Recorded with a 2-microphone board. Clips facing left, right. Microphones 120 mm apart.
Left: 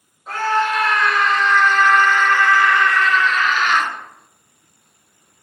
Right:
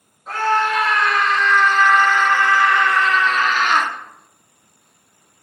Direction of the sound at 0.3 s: 5° left (ahead or behind).